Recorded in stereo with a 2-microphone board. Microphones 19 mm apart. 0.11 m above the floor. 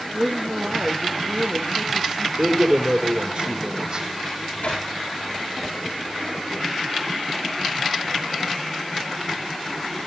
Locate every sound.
0.1 s a woman speaking: 50° right (ahead or behind), 2.5 m
2.4 s a man speaking: 55° right (ahead or behind), 4 m
4.3 s a microwave: 75° left (ahead or behind), 9 m